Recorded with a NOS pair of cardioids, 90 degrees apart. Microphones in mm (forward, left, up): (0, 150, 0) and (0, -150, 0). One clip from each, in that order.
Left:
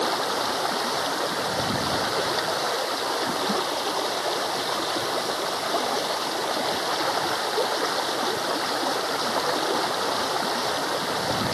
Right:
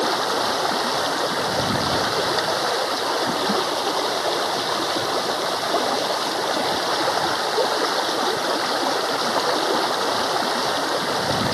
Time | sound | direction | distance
0.0 | running water | 30° right | ?